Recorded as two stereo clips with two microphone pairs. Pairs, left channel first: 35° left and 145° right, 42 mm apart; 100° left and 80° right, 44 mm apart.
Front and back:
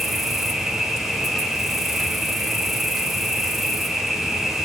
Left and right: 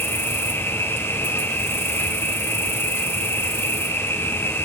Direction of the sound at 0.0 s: 125° left.